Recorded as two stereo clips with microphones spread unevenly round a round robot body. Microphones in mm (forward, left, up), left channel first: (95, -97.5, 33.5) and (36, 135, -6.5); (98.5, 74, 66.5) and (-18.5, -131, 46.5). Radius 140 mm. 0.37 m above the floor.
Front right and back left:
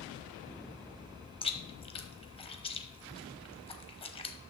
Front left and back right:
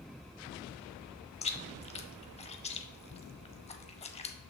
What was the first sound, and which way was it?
Chewing, 5° right.